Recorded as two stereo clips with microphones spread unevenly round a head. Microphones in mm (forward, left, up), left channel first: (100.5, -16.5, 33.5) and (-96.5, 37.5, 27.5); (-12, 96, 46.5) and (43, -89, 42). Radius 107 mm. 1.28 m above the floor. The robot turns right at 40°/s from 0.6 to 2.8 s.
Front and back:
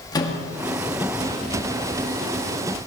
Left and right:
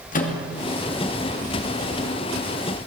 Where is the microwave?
55° left, 2.5 m.